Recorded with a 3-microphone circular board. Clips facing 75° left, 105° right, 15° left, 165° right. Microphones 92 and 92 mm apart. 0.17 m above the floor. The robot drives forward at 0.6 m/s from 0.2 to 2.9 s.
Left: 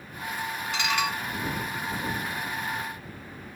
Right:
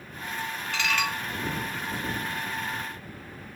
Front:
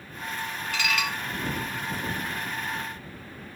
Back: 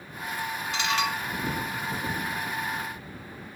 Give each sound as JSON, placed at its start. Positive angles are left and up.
{"t": 0.7, "sound": "dishes clattering", "azimuth_deg": 135, "distance_m": 0.9}